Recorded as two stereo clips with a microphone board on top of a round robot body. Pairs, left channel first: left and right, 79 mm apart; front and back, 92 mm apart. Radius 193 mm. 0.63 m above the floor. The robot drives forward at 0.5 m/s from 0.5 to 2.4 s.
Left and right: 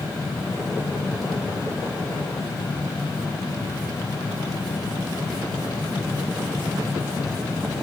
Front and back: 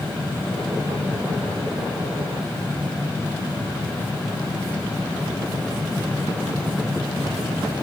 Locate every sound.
Only background noise.